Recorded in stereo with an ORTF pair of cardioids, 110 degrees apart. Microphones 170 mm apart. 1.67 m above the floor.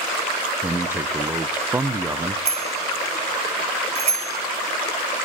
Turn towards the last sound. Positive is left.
turn(degrees=-40)